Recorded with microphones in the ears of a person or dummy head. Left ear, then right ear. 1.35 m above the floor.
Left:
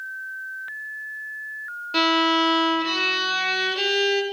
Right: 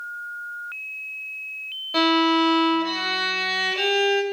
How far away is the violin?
About 1.1 m.